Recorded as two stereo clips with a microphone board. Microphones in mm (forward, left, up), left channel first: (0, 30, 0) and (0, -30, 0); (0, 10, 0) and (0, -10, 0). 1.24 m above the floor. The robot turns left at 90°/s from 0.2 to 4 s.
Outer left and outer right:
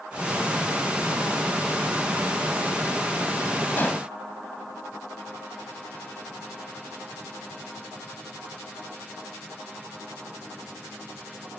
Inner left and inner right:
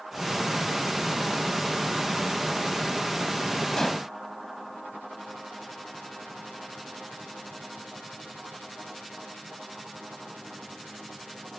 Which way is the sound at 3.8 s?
35° left (ahead or behind).